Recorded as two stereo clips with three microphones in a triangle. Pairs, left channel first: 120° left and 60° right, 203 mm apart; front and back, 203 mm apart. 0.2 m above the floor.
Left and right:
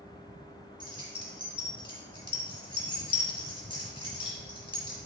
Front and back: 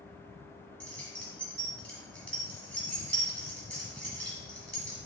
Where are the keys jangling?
80° left, 1.0 m.